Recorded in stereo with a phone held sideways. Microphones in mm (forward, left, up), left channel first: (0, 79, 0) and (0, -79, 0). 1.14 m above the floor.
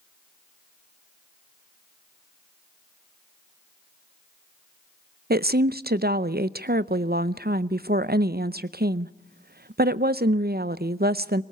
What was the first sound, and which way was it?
A woman speaking, 80° right.